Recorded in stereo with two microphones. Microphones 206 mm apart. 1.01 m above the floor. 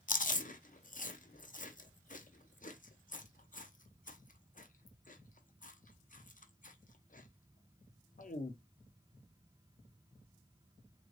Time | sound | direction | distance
0.1 | chewing | 40° left (ahead or behind) | 0.5 m